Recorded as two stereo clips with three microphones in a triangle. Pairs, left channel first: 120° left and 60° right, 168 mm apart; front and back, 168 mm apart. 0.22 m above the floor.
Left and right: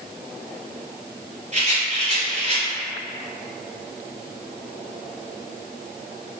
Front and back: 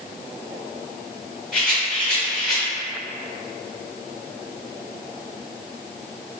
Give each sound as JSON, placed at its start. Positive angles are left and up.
{"t": 1.5, "sound": "a rattle", "azimuth_deg": -85, "distance_m": 1.8}